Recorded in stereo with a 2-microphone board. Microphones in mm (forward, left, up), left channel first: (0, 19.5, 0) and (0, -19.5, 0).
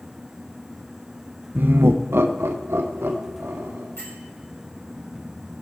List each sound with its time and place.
1.6 s laughter: 45° right (ahead or behind), 0.5 m; by 3.9 s 85° right, 2.5 m
4.0 s a bell: 80° left, 4.5 m